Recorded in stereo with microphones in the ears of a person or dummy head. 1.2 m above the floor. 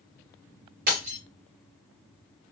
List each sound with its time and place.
0.9 s breaking glass: 50° right (ahead or behind), 3 m